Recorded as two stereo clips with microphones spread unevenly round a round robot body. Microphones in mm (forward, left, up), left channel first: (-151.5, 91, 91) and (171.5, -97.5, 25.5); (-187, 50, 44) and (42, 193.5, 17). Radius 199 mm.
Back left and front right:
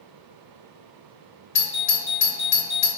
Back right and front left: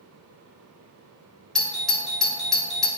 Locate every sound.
1.6 s a doorbell: 115° left, 1.4 m